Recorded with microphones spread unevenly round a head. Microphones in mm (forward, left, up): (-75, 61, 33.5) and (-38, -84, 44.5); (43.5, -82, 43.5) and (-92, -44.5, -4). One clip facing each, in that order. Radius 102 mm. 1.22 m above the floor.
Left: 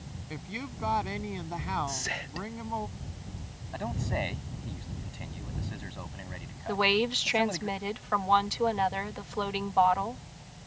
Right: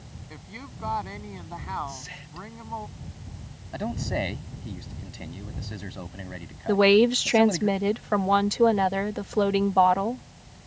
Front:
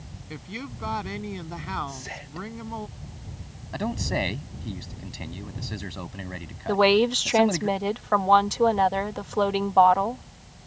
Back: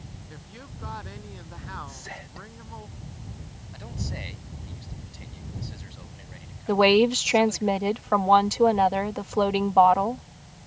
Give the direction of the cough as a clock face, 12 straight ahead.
I don't hear a cough.